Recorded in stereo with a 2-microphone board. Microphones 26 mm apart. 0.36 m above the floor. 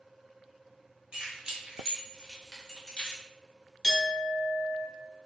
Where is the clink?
10° right (ahead or behind), 1.7 m.